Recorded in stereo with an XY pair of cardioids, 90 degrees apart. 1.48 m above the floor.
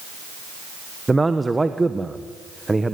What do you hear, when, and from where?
1.1 s a man speaking: 20° right, 1.4 m